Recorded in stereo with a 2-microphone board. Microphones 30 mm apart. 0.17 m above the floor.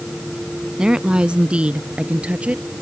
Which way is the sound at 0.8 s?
25° right (ahead or behind).